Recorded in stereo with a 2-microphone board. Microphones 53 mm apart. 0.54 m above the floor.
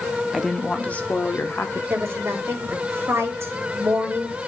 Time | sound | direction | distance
0.3 | a woman speaking | 5° right (ahead or behind) | 0.7 m
1.9 | a woman speaking | 55° right (ahead or behind) | 2 m